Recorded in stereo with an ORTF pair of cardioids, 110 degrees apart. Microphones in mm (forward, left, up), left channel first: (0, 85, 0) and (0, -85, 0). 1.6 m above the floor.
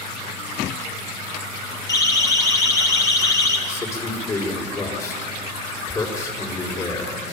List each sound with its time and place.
1.9 s a siren: 20° left, 4 m
3.7 s a man speaking: 20° left, 5.5 m